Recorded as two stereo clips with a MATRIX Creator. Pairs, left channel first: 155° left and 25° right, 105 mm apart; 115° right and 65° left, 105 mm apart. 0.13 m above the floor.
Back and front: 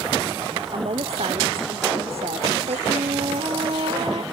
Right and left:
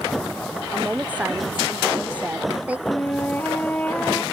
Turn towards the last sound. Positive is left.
turn(degrees=-40)